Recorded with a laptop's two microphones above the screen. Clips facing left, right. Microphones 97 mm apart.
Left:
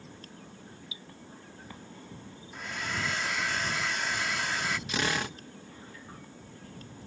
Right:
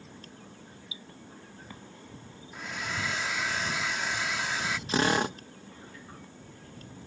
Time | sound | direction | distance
0.9 | dripping | 25° right (ahead or behind) | ?
2.5 | a hair dryer | 5° right (ahead or behind) | ?
4.9 | a drill | 35° right (ahead or behind) | ?